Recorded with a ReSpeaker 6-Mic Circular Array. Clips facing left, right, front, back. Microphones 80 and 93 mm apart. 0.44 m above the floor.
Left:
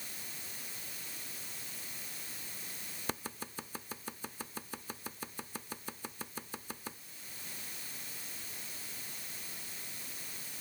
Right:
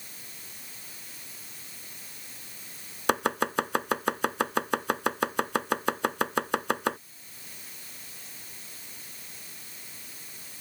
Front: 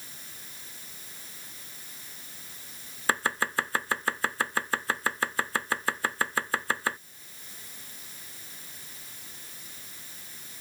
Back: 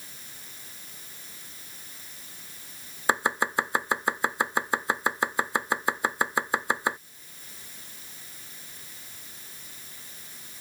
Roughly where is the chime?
No chime in this recording.